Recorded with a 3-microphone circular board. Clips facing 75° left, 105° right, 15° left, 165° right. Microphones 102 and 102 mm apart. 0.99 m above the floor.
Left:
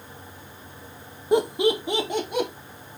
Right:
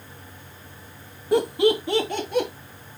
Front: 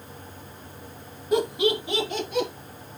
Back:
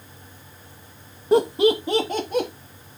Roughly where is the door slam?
No door slam in this recording.